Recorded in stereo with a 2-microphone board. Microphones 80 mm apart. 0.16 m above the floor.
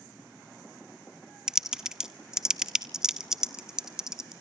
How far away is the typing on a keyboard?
About 0.6 m.